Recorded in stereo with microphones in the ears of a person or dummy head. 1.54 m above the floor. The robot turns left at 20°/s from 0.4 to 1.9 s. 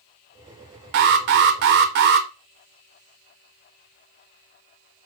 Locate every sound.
0.9 s an alarm: 50° right (ahead or behind), 0.5 m; by 2.3 s 45° right (ahead or behind), 0.5 m